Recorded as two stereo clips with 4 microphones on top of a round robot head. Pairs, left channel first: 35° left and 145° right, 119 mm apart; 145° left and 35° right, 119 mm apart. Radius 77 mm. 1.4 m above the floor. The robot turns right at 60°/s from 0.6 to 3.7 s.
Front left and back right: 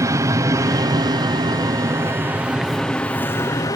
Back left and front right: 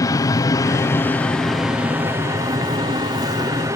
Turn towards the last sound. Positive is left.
turn(degrees=5)